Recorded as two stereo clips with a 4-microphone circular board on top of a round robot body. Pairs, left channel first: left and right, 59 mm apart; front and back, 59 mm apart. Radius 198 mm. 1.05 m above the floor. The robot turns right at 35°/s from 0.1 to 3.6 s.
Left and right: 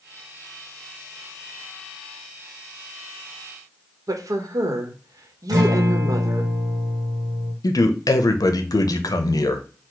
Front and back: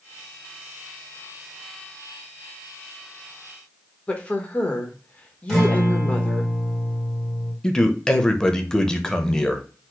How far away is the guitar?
About 1.5 m.